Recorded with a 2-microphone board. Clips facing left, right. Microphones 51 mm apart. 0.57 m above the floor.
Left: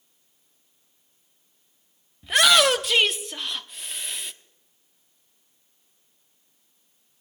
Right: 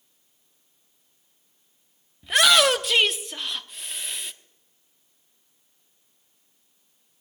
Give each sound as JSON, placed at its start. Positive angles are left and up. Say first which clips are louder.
{"t": 2.2, "sound": "a shout", "louder": "even", "side_deg": 0, "distance_m": 0.7}